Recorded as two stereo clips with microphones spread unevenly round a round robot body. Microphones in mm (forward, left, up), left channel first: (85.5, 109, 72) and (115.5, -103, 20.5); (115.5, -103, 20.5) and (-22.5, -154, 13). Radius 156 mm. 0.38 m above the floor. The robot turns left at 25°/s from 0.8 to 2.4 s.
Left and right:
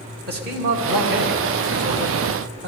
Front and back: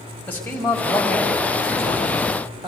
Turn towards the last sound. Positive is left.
turn(degrees=-100)